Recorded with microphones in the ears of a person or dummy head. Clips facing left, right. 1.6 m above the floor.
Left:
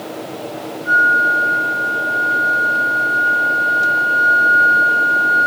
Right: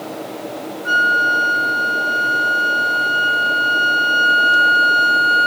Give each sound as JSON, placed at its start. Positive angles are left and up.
{"t": 0.8, "sound": "a flute", "side_deg": -70, "distance_m": 0.7}